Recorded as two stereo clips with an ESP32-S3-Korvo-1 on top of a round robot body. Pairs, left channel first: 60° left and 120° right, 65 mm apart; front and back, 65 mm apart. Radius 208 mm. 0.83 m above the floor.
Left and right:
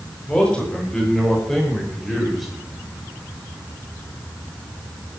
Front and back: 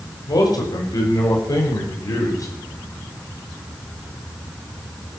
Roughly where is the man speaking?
Ahead.